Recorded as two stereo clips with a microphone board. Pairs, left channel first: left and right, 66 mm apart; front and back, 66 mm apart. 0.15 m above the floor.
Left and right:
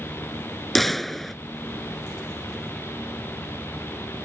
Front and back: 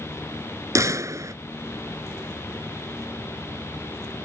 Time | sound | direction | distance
0.8 | a gunshot | 175° left | ?